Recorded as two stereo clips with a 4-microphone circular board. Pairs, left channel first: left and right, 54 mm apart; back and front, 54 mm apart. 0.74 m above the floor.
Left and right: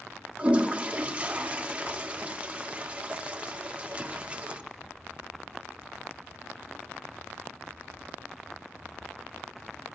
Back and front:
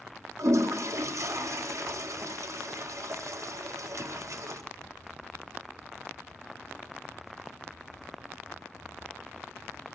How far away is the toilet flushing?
About 0.5 m.